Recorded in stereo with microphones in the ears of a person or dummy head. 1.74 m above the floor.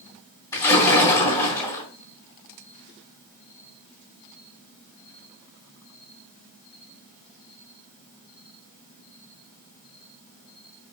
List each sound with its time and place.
0.5 s a splash: 20° left (ahead or behind), 3 m